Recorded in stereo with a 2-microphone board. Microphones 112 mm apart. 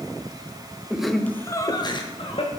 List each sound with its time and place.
0.9 s laughter: 10° right (ahead or behind), 0.8 m; by 2.5 s 55° left (ahead or behind), 1.5 m